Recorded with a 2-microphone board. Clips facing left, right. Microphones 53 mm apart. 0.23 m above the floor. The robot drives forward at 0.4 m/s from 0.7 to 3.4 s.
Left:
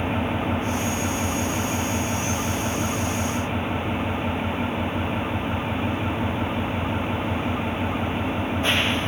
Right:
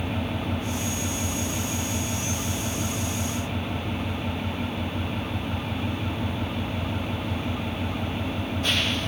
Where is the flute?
No flute in this recording.